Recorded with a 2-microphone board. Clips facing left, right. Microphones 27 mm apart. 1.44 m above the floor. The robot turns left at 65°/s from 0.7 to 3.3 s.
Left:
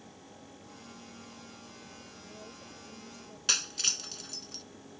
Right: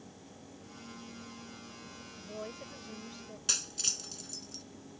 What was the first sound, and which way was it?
A woman speaking, 85° right.